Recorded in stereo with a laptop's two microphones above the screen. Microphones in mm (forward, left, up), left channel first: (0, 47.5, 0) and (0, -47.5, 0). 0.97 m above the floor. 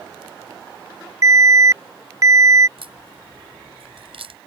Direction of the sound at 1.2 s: 35° right (ahead or behind).